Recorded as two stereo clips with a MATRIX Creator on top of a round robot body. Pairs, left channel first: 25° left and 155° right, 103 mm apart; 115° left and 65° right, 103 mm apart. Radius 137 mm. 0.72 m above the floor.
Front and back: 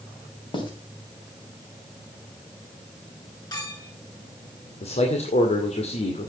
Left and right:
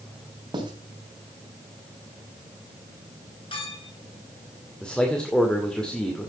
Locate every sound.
0.5 s writing: 20° right, 3 m
3.5 s a clink: 75° left, 8 m
4.8 s a man speaking: 30° left, 2 m